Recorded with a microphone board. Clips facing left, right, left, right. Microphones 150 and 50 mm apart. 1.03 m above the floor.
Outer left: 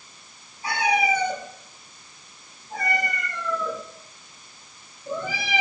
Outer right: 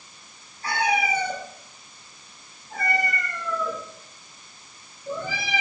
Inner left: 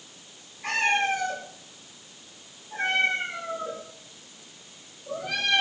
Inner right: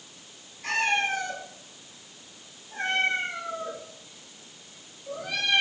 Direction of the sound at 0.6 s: 15° left (ahead or behind).